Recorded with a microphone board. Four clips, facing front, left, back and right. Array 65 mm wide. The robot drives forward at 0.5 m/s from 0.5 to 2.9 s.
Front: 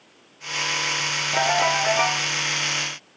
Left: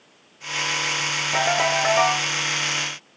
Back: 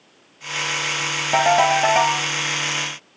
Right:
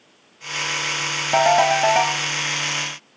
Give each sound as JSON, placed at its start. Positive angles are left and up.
{"t": 1.3, "sound": "a ringtone", "azimuth_deg": -130, "distance_m": 5.5}